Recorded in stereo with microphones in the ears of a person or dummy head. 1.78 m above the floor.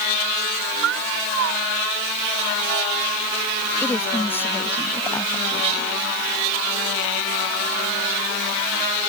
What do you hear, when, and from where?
0.8 s a cat meowing: 70° right (ahead or behind)
3.8 s a woman speaking: 10° left (ahead or behind)